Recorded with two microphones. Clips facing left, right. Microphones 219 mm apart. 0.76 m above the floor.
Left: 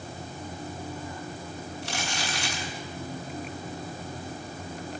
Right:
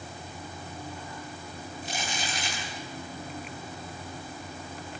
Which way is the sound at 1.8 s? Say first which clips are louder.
Left 1 dB; 80° left.